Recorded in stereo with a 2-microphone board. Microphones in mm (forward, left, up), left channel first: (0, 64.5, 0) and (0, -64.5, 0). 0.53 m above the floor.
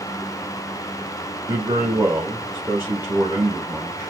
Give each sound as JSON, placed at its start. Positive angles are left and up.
{"t": 1.5, "sound": "a man speaking", "side_deg": -20, "distance_m": 2.0}